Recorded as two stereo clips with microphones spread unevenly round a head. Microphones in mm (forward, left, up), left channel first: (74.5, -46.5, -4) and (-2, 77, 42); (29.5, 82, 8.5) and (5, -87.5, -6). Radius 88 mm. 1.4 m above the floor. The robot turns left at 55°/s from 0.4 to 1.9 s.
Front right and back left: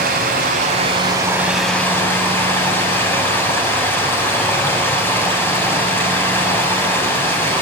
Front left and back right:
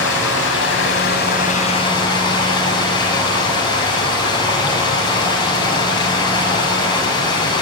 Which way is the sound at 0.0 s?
100° left.